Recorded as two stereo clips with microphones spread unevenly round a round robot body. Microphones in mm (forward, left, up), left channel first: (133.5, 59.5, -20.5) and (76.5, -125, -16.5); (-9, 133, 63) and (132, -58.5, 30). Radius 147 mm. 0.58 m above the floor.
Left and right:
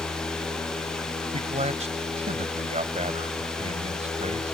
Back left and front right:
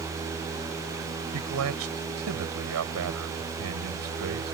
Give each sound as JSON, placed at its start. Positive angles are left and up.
{"t": 1.3, "sound": "a man speaking", "azimuth_deg": -55}